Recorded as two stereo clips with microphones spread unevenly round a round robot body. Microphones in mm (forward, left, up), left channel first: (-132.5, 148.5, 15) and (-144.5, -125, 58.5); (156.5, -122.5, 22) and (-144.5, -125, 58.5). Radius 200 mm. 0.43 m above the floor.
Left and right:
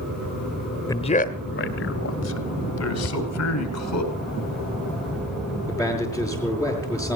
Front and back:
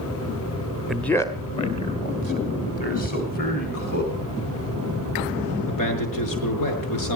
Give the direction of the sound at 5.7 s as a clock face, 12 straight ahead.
12 o'clock.